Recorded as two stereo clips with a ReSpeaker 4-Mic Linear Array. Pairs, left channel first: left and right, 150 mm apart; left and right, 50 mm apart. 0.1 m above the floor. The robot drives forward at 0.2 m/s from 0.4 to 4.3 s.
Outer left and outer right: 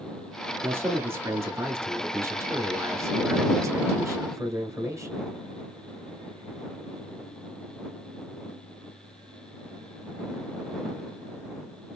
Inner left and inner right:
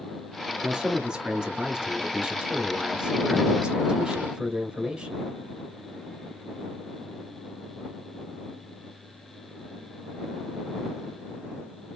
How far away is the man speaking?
About 1.3 m.